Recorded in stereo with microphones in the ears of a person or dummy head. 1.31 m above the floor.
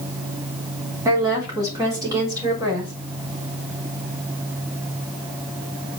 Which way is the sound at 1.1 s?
20° right (ahead or behind).